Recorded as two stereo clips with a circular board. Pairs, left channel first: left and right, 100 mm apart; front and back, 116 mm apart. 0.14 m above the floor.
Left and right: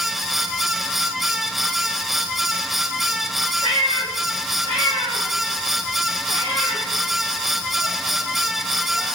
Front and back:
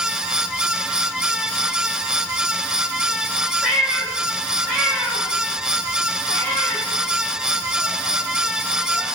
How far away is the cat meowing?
About 8 m.